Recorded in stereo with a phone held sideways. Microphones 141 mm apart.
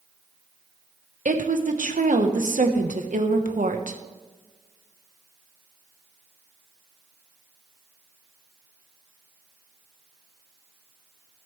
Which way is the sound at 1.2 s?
65° right (ahead or behind).